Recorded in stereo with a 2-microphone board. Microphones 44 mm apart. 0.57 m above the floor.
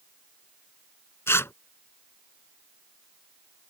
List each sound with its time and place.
1.3 s tearing paper: 75° left (ahead or behind)